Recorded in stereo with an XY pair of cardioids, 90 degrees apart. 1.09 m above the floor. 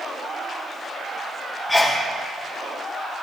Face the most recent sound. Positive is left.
turn(degrees=20)